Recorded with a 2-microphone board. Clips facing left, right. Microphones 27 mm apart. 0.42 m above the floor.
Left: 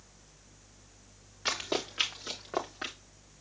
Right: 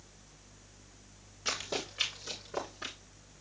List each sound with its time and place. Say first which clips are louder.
1.4 s running footsteps: left 3 dB; 80° left, 4 m